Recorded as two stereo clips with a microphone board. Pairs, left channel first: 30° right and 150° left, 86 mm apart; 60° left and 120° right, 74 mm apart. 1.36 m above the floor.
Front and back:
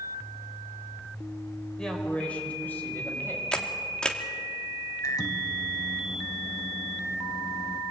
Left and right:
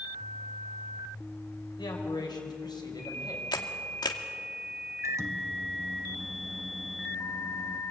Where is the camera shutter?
50° left, 2 m.